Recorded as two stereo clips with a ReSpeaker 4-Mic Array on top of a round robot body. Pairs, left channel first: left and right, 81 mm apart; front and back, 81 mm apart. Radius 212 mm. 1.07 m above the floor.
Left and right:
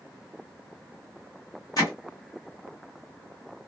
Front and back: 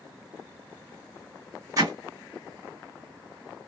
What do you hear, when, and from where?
1.8 s hammering: 135° left, 1.6 m